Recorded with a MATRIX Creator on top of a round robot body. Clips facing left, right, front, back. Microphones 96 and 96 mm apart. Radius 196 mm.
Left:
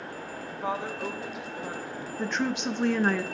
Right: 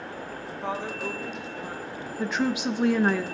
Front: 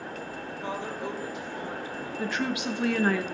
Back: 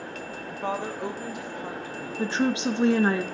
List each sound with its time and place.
0.5 s a woman speaking: straight behind, 1.1 m; by 2.1 s 170° left, 2 m
2.2 s a woman speaking: 170° right, 0.7 m